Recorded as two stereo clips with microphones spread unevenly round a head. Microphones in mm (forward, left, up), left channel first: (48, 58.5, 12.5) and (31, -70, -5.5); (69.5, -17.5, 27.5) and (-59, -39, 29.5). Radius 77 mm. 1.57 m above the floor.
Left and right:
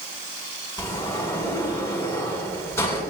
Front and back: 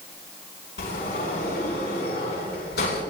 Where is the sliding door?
10° left, 8.5 m.